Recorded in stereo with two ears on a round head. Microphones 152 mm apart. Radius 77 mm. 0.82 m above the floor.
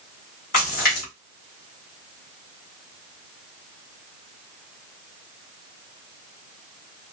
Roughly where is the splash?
Left.